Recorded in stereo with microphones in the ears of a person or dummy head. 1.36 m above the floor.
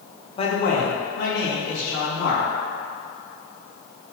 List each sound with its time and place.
0.4 s a man speaking: 30° left (ahead or behind), 1.2 m; by 2.5 s 80° left, 3 m